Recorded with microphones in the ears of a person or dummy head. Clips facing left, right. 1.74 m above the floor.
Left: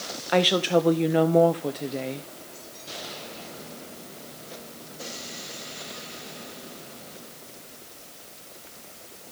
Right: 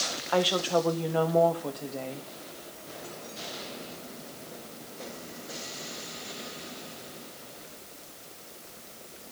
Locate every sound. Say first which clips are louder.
0.3 s a woman speaking: left 4 dB; 35° left (ahead or behind), 0.7 m